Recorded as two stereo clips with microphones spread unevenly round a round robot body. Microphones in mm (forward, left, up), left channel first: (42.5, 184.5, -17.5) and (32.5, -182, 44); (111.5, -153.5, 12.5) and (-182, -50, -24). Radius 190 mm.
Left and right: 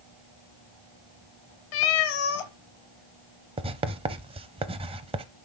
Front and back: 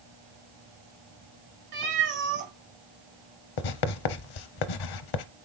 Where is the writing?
15° right, 0.7 m.